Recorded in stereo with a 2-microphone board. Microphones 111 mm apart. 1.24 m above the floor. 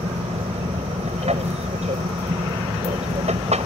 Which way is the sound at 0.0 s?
75° right (ahead or behind).